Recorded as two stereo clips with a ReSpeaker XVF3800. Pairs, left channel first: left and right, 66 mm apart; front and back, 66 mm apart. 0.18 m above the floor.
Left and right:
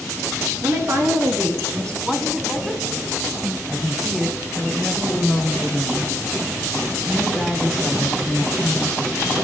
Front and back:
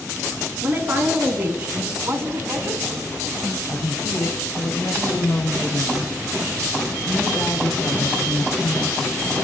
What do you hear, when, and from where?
0.6 s a woman speaking: 125° right, 3 m; by 1.9 s 115° right, 4.5 m
2.0 s a woman speaking: 170° right, 1.4 m
3.7 s a woman speaking: 10° right, 3 m